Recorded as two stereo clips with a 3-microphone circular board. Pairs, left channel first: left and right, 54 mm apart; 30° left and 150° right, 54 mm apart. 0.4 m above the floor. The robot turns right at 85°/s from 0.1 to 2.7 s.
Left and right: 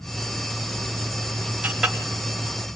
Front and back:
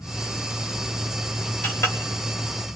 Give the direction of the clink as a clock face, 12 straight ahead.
1 o'clock.